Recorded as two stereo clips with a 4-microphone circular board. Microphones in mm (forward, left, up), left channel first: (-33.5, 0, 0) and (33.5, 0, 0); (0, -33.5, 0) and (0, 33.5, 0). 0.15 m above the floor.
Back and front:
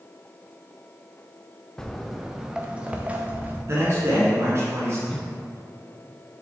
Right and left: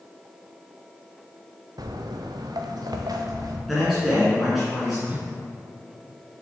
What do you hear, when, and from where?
1.8 s footsteps: 100° left, 0.9 m; by 3.6 s 65° left, 1.7 m
3.7 s a man speaking: straight ahead, 2 m
5.1 s a whoosh: 120° left, 0.7 m